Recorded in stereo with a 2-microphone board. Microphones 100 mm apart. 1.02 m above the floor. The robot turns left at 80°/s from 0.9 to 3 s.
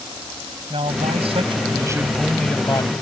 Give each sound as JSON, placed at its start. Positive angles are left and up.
{"t": 0.7, "sound": "a man speaking", "azimuth_deg": -70}